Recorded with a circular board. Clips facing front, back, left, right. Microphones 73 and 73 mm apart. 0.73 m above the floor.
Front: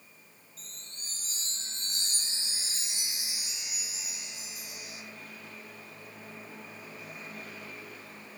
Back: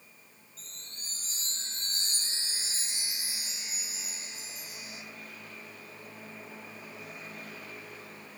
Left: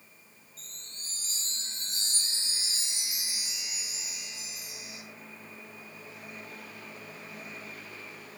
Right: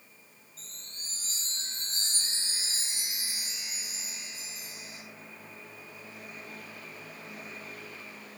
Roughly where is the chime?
Behind right.